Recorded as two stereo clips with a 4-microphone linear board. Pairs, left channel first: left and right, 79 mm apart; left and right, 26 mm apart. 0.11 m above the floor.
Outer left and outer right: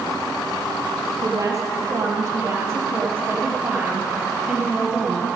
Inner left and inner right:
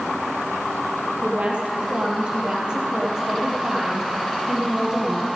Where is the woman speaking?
50° right (ahead or behind), 3 m; by 5.3 s 10° right (ahead or behind), 3 m.